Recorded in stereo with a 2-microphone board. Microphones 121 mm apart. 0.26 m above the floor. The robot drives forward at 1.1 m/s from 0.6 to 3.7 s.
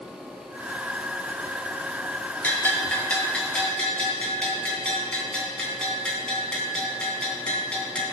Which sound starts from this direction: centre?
A bell, at 2.4 s.